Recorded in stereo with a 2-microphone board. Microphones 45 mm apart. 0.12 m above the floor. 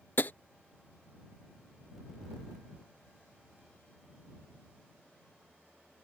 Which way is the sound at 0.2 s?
50° left (ahead or behind).